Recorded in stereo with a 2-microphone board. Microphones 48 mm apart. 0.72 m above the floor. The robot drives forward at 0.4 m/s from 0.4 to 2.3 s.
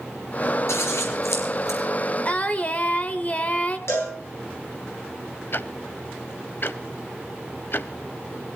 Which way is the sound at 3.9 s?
75° left (ahead or behind).